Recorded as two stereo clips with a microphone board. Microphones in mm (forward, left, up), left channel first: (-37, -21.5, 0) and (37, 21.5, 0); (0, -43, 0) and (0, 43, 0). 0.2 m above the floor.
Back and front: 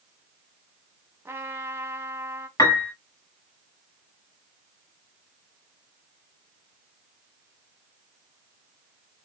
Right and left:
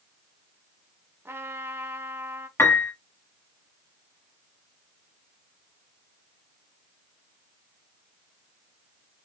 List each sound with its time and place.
1.2 s a trumpet: 60° left, 0.8 m
2.6 s a piano: 135° right, 1.4 m